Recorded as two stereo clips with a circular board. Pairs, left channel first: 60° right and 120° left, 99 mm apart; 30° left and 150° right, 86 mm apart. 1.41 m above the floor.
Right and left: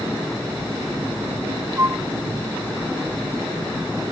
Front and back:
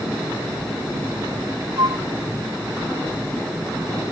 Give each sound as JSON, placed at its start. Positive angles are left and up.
{"t": 1.8, "sound": "a flute", "azimuth_deg": 180}